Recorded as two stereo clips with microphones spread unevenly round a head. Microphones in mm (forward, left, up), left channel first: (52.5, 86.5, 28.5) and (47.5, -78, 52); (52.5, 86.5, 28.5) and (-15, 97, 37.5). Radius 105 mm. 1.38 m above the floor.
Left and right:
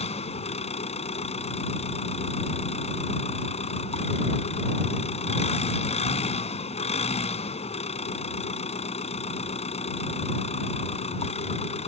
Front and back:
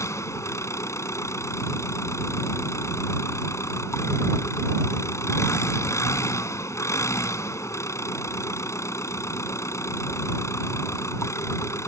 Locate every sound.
0.0 s an engine running: 35° left